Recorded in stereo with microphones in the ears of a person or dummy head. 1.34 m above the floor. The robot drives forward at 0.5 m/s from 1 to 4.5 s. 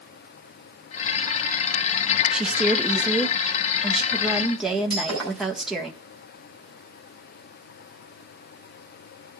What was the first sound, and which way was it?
A woman speaking, 5° right (ahead or behind).